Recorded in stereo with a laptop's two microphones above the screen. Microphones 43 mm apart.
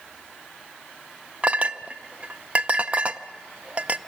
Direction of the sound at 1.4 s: 35° right (ahead or behind).